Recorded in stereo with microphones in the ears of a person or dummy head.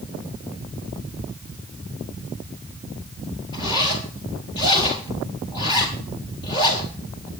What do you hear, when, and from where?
3.5 s a zipper: 25° left (ahead or behind), 4 m